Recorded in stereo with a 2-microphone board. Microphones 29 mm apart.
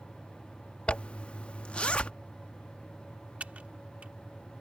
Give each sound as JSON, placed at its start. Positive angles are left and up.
{"t": 0.9, "sound": "a zipper", "side_deg": 40}
{"t": 3.4, "sound": "typing on a keyboard", "side_deg": -50}